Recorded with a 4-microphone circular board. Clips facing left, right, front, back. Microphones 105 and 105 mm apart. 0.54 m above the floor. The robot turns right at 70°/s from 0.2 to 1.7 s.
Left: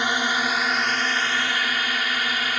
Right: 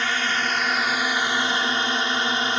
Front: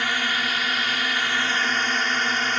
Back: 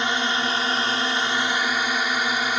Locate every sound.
0.0 s a drone: 145° left; by 2.6 s 110° right